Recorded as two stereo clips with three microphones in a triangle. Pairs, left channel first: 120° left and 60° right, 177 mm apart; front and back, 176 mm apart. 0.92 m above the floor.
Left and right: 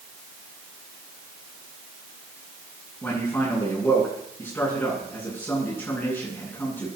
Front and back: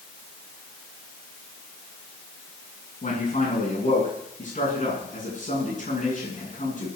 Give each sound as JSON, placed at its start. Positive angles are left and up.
{"t": 3.0, "sound": "a man speaking", "azimuth_deg": 45, "distance_m": 7.5}